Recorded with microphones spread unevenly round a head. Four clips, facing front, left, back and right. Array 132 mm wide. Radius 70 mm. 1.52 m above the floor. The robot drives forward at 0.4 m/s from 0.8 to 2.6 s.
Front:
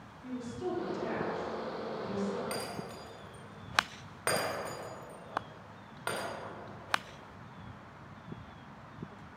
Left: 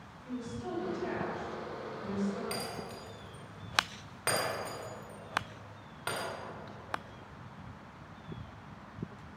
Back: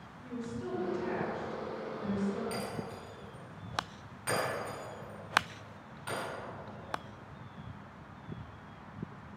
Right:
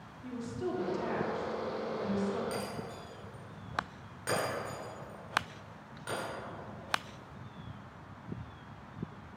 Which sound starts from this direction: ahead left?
Breaking glass, at 2.5 s.